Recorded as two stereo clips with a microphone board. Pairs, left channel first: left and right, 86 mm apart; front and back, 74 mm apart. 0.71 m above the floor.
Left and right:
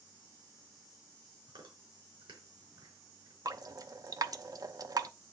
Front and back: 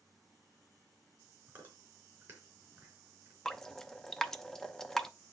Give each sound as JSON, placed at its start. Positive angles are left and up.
{"t": 1.5, "sound": "chewing", "azimuth_deg": -110, "distance_m": 4.0}
{"t": 3.5, "sound": "dripping", "azimuth_deg": -80, "distance_m": 0.6}